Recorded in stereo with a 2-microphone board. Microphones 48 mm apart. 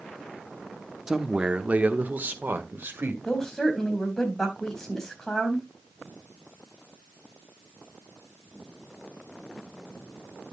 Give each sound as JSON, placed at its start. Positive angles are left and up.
{"t": 1.1, "sound": "a man speaking", "side_deg": -10, "distance_m": 1.0}
{"t": 3.2, "sound": "a woman speaking", "side_deg": 10, "distance_m": 4.0}